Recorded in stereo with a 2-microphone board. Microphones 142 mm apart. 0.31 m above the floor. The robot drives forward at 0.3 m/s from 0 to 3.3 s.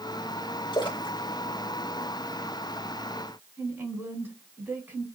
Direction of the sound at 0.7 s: 35° left (ahead or behind).